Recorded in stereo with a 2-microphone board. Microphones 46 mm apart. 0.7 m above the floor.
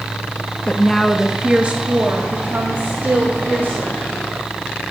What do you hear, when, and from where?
0.7 s a woman speaking: 25° left (ahead or behind), 0.6 m; by 4.0 s 55° right (ahead or behind), 2 m